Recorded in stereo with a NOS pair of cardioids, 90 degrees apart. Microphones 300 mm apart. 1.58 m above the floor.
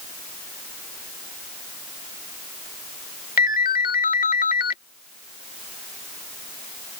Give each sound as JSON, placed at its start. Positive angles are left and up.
{"t": 3.4, "sound": "a ringtone", "azimuth_deg": 30}